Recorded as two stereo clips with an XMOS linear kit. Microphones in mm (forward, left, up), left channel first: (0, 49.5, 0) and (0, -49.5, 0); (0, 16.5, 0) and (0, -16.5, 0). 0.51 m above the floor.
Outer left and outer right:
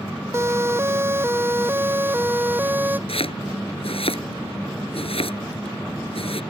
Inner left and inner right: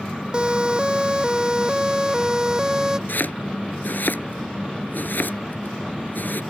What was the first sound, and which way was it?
A siren, 25° right (ahead or behind).